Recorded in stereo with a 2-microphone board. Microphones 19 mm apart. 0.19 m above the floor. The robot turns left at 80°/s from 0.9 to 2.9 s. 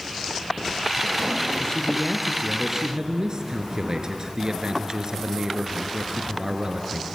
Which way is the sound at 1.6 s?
65° left.